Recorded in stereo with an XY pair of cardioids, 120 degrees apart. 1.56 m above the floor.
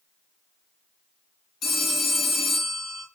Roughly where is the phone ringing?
Ahead left.